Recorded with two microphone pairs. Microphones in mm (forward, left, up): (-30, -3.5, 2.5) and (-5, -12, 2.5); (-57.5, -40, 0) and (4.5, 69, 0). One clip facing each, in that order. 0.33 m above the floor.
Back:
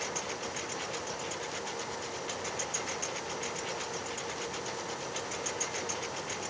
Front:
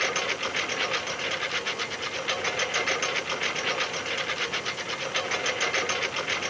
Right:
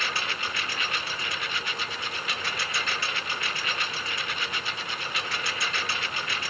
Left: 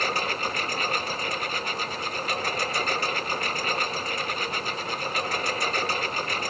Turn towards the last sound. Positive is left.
turn(degrees=20)